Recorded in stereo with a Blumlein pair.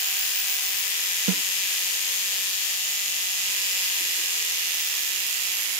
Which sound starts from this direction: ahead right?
A snare drum, at 1.3 s.